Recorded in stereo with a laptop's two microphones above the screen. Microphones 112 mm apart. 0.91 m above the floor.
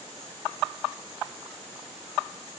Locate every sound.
Only background noise.